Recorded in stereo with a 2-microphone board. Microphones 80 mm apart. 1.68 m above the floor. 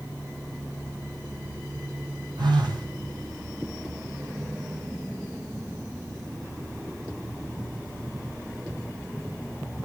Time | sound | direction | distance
2.4 | a phone buzzing | 85° right | 7 m